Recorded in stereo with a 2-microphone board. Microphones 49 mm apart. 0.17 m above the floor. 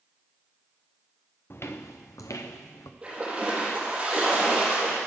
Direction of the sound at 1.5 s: 45° left (ahead or behind).